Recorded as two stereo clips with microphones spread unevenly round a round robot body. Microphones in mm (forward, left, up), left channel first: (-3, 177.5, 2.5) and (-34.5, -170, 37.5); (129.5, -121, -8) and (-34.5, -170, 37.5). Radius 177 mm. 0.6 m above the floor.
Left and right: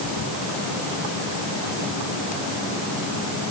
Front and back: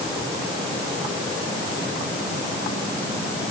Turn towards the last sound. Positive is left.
No sound to turn to.